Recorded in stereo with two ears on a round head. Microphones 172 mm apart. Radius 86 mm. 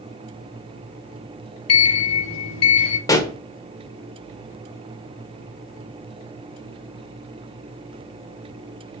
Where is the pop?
20° left (ahead or behind), 1.2 m.